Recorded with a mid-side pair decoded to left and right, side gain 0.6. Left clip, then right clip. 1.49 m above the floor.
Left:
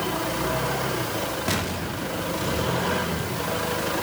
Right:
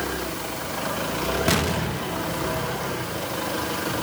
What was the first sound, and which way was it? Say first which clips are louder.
An explosion: right 4 dB; 25° right.